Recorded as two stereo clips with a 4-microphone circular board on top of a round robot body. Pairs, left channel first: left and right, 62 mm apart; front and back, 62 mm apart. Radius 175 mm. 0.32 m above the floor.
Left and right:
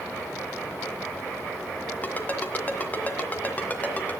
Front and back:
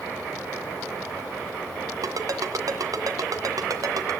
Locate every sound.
2.0 s a ringtone: 155° left, 2 m